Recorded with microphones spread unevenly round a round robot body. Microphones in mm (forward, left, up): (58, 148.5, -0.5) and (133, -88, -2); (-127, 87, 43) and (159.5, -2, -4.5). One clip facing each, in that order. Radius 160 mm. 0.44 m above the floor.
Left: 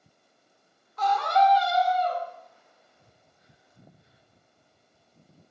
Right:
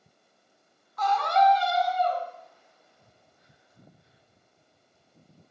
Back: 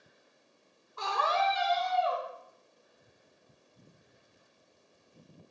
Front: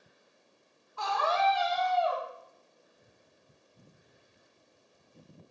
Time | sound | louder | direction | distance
1.0 | a scream | even, front 2 dB | 110° left | 0.8 m